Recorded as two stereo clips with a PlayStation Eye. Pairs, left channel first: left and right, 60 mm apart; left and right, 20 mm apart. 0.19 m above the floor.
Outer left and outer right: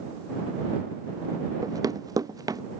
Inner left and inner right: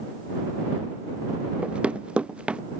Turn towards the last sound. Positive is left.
turn(degrees=-85)